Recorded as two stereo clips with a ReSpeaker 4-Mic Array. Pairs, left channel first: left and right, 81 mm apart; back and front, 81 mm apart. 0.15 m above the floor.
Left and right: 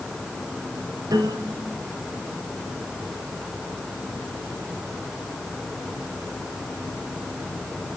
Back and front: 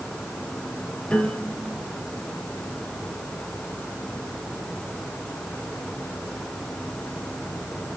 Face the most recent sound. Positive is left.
turn(degrees=-100)